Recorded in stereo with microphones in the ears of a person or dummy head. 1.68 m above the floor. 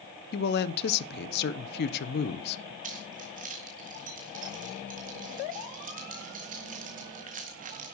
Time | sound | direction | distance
0.3 | a man speaking | 65° left (ahead or behind) | 1.2 m
2.8 | keys jangling | 50° right (ahead or behind) | 1.8 m